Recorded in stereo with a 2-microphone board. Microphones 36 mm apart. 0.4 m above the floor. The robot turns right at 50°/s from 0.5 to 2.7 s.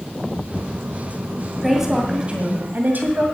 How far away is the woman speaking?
About 2 m.